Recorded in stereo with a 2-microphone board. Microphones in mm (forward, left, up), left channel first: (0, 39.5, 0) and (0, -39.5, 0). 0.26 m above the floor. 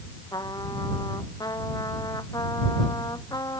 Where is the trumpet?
55° left (ahead or behind).